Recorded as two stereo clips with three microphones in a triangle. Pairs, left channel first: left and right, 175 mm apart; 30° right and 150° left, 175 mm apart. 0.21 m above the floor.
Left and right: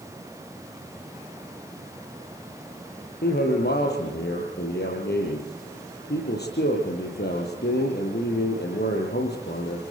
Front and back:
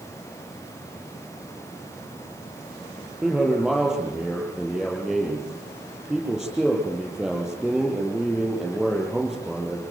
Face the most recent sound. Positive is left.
turn(degrees=65)